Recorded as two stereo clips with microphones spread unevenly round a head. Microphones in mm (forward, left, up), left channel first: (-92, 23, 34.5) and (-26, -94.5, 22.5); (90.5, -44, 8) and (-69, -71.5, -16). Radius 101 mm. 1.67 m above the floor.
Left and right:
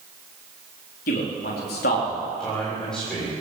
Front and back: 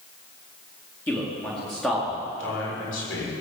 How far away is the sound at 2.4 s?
About 7 m.